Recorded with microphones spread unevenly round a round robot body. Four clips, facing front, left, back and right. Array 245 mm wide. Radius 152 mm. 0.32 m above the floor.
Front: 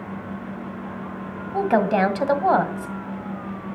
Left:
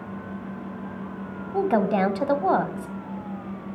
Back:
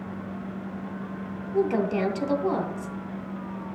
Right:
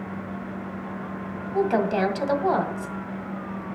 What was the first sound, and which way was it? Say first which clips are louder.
A woman speaking: left 1 dB, front 5 dB; 5° left.